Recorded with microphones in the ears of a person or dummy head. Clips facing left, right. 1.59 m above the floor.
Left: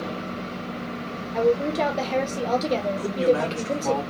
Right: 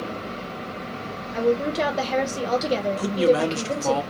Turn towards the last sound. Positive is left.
turn(degrees=-55)  # may be behind; listen again after turning